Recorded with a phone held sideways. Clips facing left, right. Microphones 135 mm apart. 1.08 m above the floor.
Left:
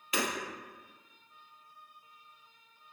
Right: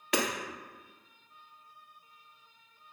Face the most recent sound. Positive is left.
turn(degrees=-65)  # may be behind; listen again after turning